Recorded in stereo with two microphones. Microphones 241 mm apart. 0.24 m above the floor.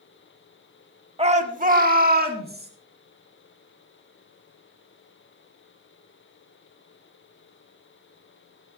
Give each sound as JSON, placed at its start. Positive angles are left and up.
{"t": 1.2, "sound": "a shout", "side_deg": -25, "distance_m": 1.3}